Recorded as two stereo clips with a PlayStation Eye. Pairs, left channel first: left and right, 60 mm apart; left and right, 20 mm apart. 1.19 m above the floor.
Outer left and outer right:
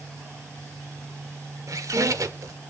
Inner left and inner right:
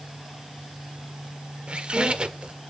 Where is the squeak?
65° right (ahead or behind), 1.5 m.